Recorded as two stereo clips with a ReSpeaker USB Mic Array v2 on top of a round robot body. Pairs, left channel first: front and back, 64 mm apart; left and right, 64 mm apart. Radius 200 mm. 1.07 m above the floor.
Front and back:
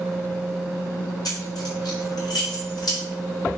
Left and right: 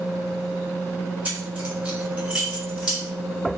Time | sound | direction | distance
1.2 | keys jangling | 20° right | 2.5 m